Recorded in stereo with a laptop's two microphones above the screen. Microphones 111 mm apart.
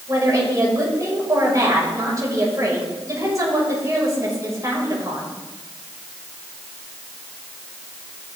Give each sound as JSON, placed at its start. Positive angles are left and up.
{"t": 0.1, "sound": "a woman speaking", "side_deg": -35, "distance_m": 5.5}